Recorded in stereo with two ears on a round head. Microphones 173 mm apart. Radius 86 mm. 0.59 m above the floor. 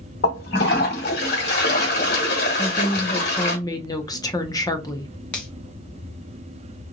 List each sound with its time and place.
0.2 s a toilet flushing: 55° left (ahead or behind), 1.3 m
2.6 s a woman speaking: 20° left (ahead or behind), 0.6 m
5.3 s a finger snap: 5° left (ahead or behind), 1.1 m